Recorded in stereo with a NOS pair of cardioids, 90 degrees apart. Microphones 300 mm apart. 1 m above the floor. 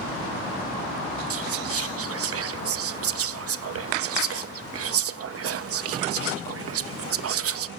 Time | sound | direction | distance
1.3 | whispering | 50° right | 0.9 m